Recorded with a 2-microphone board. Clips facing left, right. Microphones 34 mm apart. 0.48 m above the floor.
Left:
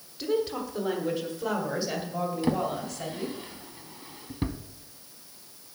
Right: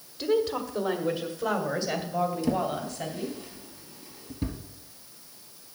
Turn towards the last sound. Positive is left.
turn(degrees=45)  # may be behind; listen again after turning